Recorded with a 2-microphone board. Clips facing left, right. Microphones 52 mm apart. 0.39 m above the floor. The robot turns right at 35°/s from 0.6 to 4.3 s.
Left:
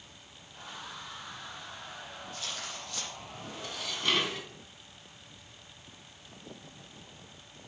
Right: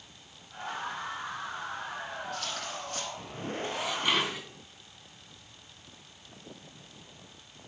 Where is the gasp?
No gasp in this recording.